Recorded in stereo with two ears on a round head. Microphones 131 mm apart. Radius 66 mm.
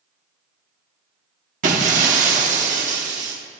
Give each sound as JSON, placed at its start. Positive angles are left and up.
{"t": 1.6, "sound": "breaking glass", "side_deg": -55, "distance_m": 1.2}